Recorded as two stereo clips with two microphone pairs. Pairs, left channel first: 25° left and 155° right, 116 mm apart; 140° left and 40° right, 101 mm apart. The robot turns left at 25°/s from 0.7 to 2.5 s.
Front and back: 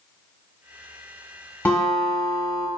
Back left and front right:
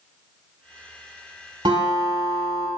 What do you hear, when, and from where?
1.6 s a guitar: 50° right, 1.0 m; by 2.7 s 70° right, 1.0 m